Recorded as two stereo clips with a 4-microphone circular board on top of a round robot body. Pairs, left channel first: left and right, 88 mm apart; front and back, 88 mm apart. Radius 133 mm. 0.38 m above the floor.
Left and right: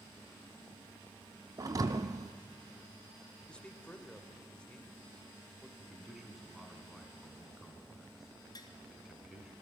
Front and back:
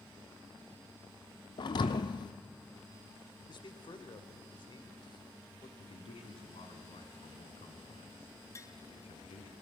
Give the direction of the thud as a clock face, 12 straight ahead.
1 o'clock.